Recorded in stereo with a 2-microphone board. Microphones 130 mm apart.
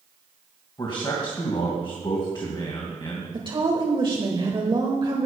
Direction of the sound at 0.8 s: 35° left (ahead or behind).